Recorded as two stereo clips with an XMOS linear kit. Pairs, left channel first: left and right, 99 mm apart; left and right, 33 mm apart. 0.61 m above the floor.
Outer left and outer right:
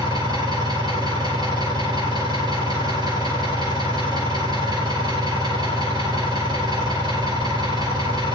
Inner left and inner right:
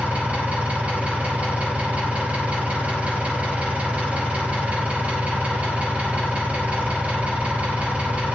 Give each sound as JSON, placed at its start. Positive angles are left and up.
{"t": 0.0, "sound": "an engine running", "side_deg": -45, "distance_m": 4.5}